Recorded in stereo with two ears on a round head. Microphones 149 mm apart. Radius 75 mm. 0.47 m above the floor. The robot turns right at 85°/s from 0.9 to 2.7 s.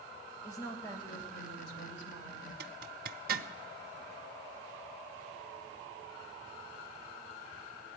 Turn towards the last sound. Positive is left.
turn(degrees=-55)  # may be behind; listen again after turning